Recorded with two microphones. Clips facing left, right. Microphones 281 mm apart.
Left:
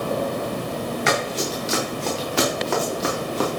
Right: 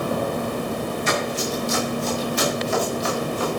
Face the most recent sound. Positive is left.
turn(degrees=70)  # may be behind; listen again after turning